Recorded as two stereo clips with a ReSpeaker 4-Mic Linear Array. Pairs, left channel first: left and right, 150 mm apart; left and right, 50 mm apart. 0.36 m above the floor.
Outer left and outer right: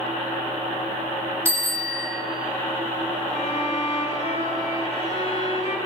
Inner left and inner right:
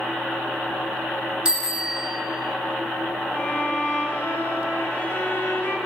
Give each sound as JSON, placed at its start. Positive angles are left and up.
{"t": 1.4, "sound": "a bicycle bell", "side_deg": -15, "distance_m": 3.0}
{"t": 3.3, "sound": "a violin", "side_deg": 45, "distance_m": 2.0}